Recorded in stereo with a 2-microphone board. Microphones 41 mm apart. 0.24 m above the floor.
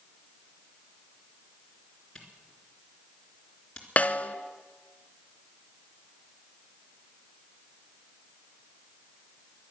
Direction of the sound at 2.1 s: 20° left (ahead or behind).